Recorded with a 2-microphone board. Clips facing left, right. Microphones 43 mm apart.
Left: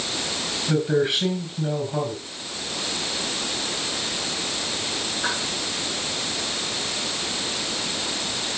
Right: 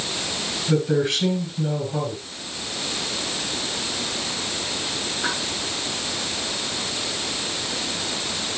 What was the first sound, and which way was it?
A man speaking, 15° left (ahead or behind).